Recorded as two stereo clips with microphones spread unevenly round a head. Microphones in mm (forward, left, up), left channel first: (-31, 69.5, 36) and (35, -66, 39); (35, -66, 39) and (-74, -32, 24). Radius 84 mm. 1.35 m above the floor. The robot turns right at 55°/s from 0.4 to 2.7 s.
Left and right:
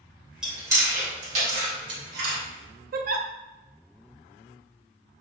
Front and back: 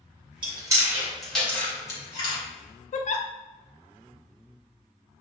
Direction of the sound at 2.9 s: 35° right.